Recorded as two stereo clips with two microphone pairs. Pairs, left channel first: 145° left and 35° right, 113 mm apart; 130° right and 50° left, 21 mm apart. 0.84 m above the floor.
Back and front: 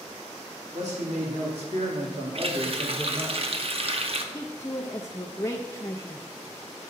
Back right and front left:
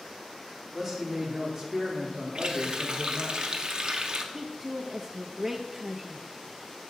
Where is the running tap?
Straight ahead, 0.7 m.